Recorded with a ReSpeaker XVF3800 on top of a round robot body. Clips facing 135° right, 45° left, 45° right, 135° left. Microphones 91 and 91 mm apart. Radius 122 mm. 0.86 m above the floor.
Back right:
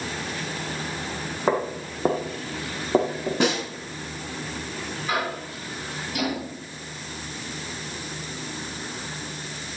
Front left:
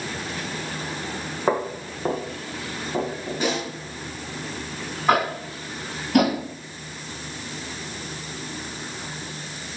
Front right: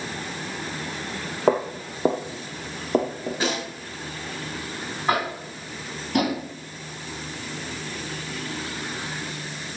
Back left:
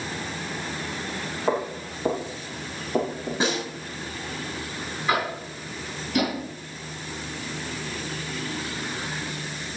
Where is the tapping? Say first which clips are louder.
Front left 8 dB, front right 1 dB; 5° left, 3 m.